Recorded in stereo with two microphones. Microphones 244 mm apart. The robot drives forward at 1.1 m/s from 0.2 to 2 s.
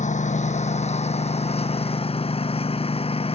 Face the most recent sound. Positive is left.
turn(degrees=25)  # may be behind; listen again after turning